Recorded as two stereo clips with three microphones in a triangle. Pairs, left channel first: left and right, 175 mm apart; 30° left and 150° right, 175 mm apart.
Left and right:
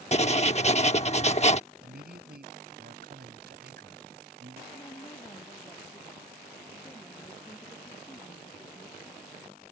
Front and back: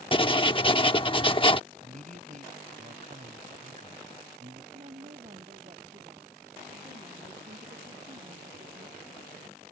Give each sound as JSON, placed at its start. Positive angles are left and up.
{"t": 0.1, "sound": "writing", "azimuth_deg": 70}
{"t": 1.8, "sound": "a man speaking", "azimuth_deg": -110}
{"t": 4.7, "sound": "a woman speaking", "azimuth_deg": 160}